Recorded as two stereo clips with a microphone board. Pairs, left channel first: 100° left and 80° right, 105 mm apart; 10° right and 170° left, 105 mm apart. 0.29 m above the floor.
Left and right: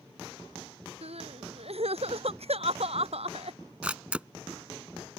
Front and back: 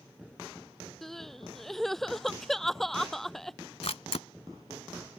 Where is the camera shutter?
Straight ahead.